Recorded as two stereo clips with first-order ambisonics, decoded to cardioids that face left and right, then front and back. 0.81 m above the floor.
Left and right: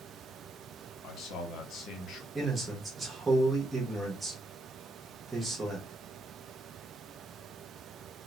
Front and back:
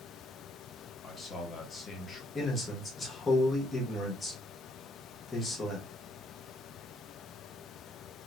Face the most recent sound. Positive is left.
turn(degrees=-35)